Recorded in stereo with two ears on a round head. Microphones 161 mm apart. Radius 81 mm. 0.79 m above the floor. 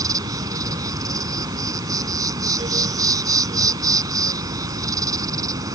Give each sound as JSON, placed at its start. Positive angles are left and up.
{"t": 0.0, "sound": "an insect", "side_deg": -20}